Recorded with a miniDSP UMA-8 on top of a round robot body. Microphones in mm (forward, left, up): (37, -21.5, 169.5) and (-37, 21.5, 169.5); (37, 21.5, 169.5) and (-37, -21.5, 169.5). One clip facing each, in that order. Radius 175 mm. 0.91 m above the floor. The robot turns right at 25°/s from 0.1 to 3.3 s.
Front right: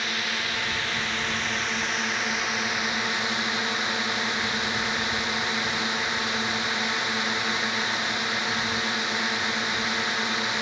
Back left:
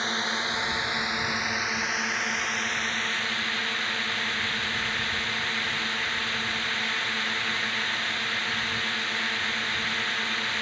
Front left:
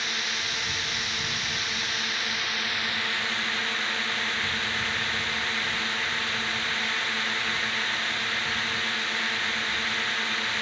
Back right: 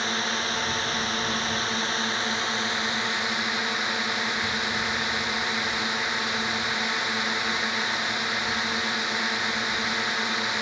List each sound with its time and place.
0.0 s a drone: 170° right; by 10.6 s 90° right